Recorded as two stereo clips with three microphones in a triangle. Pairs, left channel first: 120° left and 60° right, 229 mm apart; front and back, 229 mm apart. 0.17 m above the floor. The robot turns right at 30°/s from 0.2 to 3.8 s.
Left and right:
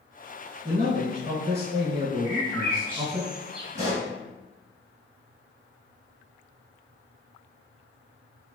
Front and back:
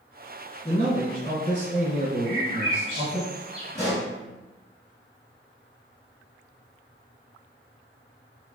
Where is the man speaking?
45° right, 1.8 m; by 3.2 s 30° left, 1.8 m.